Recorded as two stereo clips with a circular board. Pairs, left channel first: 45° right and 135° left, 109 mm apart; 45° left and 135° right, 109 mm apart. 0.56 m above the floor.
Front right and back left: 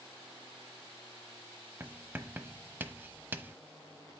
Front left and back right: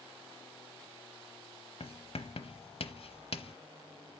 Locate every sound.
1.8 s writing: 65° left, 0.9 m